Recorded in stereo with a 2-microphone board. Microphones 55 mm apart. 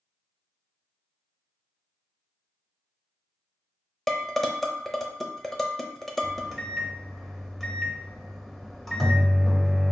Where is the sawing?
No sawing in this recording.